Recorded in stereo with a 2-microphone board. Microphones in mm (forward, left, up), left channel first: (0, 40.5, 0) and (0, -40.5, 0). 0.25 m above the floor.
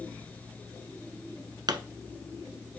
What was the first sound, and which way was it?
A pop, 65° right (ahead or behind).